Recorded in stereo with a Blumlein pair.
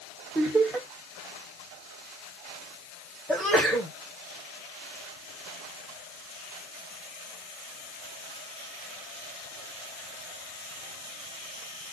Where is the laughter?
10° right, 1.1 m.